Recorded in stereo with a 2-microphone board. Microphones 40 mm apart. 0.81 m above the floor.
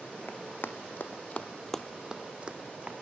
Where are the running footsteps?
60° left (ahead or behind), 2 m; by 2.9 s 35° right (ahead or behind), 2 m.